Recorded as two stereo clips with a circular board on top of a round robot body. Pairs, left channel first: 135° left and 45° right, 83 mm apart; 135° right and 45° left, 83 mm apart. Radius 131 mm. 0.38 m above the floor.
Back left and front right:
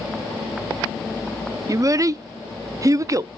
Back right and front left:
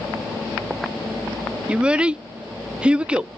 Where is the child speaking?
25° right, 0.5 m.